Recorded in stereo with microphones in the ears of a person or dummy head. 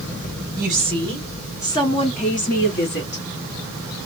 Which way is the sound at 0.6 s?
5° right (ahead or behind).